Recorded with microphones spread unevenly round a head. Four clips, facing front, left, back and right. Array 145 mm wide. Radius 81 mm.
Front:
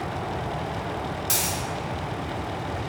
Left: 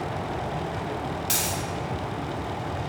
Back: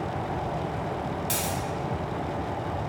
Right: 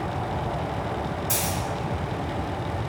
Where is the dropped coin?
115° left, 0.6 m.